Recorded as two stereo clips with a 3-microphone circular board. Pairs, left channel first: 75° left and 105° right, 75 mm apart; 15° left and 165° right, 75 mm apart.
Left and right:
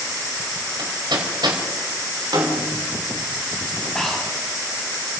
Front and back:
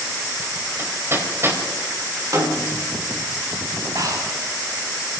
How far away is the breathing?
About 7 m.